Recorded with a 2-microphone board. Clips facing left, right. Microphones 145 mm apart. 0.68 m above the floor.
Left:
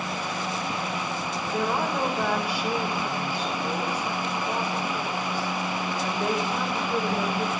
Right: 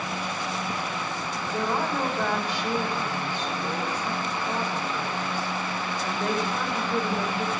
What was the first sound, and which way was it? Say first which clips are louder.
A woman speaking: left 1 dB; 10° left (ahead or behind).